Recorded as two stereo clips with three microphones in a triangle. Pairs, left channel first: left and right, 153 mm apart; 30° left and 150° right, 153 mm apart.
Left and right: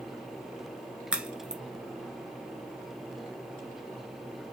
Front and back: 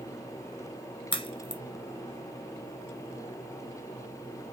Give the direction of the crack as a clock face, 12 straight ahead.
12 o'clock.